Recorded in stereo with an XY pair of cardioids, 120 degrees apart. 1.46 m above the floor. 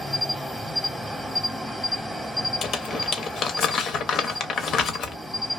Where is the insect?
5° left, 0.8 m.